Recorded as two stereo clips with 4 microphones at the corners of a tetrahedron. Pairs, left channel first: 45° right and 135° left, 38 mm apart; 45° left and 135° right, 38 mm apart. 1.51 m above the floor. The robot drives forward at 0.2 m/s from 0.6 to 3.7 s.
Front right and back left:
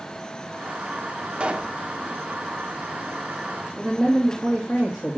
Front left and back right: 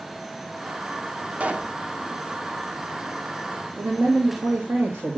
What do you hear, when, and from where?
1.4 s a pop: 170° right, 0.8 m
3.8 s a man speaking: 130° right, 2 m